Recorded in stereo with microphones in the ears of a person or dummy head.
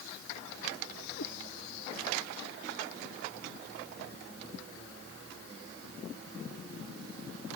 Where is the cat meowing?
70° left (ahead or behind).